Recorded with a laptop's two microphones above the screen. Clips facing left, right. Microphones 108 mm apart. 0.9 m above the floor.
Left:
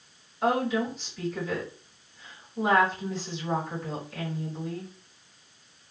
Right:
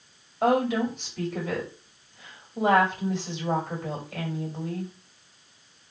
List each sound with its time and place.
0.4 s a woman speaking: 60° right (ahead or behind), 1.7 m